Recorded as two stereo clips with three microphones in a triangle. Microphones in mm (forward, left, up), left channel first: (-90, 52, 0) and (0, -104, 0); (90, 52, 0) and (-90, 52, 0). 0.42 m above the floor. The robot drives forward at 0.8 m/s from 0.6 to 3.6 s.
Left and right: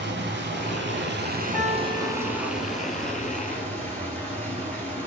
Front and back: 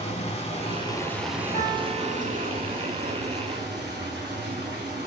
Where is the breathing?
No breathing in this recording.